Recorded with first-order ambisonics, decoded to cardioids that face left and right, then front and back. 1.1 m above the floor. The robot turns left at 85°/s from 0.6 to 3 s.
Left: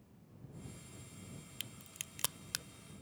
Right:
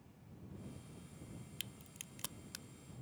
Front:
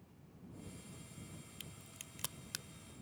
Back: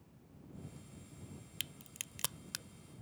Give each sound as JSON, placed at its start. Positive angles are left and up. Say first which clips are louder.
{"t": 1.6, "sound": "a crack", "louder": "left 3 dB, back 11 dB", "azimuth_deg": 175}